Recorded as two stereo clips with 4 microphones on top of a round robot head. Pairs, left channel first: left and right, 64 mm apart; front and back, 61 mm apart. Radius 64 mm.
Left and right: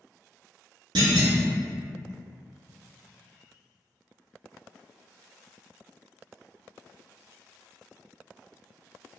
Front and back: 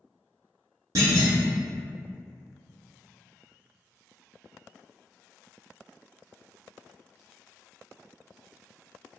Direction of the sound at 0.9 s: 125° right.